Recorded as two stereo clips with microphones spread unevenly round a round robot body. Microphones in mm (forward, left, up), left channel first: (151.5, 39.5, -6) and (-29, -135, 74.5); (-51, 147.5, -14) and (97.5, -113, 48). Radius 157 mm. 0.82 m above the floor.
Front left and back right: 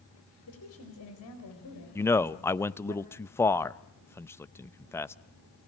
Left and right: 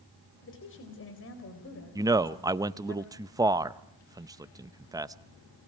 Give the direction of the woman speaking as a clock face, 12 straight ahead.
10 o'clock.